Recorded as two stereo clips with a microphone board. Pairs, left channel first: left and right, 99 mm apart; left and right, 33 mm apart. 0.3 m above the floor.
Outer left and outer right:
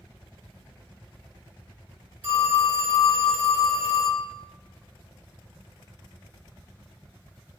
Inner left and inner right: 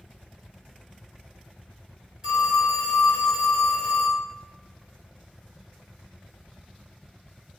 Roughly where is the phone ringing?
Centre.